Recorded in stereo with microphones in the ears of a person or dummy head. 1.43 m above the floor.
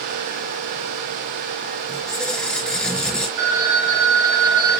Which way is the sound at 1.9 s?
5° left (ahead or behind).